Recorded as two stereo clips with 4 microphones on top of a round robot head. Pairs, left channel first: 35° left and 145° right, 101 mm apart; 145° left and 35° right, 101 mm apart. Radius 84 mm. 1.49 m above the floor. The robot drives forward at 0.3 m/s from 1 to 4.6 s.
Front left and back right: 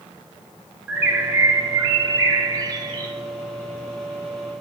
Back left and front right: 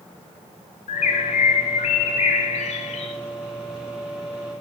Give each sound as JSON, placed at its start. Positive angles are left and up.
{"t": 0.9, "sound": "a bird", "azimuth_deg": 140, "distance_m": 0.6}